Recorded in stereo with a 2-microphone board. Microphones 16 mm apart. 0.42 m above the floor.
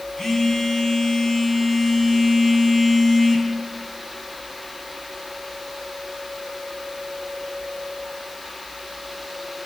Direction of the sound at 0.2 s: 25° left (ahead or behind).